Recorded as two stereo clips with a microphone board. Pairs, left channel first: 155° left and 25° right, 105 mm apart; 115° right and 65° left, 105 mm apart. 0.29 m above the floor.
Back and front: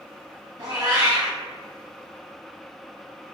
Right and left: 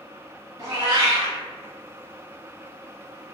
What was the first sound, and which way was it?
A cat meowing, 20° left.